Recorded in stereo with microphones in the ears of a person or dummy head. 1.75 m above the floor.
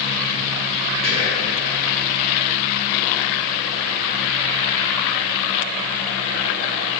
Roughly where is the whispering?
Right.